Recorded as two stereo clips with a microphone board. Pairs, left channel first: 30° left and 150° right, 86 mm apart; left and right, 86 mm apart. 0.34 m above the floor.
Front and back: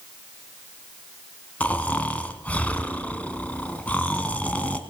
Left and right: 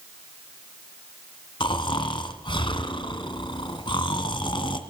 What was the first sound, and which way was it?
Snoring, 100° left.